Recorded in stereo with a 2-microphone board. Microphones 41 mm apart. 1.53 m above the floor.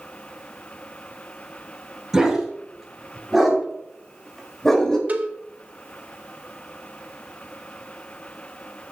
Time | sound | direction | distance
2.1 | a dog barking | 10° right (ahead or behind) | 6 m
5.1 | a cowbell | 40° right (ahead or behind) | 1.5 m